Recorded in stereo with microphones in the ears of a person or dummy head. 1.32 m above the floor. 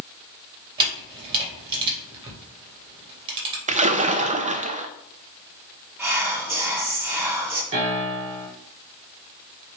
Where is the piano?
30° right (ahead or behind), 3.5 m.